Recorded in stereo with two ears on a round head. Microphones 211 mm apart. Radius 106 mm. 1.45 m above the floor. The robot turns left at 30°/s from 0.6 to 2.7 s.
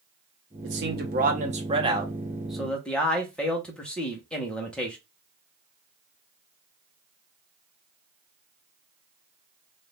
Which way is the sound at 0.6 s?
125° right.